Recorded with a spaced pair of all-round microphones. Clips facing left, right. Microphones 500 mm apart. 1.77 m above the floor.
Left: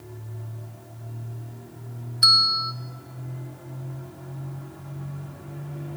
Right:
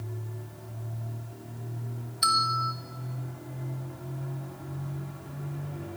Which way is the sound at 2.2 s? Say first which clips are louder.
Right 1 dB; 15° right (ahead or behind).